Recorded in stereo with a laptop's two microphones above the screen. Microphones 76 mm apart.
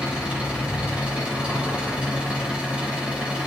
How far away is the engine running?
About 3.5 m.